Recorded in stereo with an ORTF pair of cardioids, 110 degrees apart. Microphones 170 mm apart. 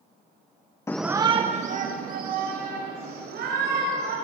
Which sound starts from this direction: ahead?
A shout, at 0.9 s.